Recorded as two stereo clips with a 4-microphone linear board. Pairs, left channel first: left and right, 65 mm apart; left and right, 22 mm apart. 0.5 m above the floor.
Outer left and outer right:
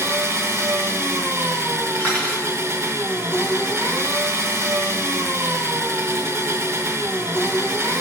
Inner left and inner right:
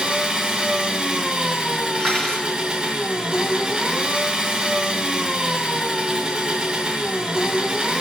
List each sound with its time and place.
0.0 s an engine running: 40° right (ahead or behind), 1.6 m
2.0 s cutlery clinking: 15° left (ahead or behind), 3.5 m